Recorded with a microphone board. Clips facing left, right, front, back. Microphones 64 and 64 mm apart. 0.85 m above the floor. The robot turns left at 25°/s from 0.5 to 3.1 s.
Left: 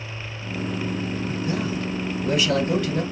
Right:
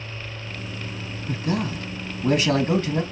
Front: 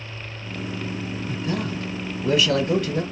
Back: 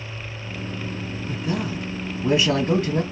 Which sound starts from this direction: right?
A man speaking, at 1.3 s.